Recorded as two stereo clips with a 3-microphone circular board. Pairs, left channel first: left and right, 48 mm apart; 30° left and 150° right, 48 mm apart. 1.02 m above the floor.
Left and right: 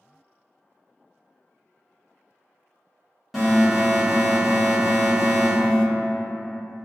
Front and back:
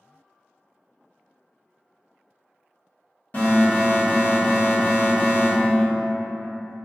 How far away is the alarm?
About 1.5 m.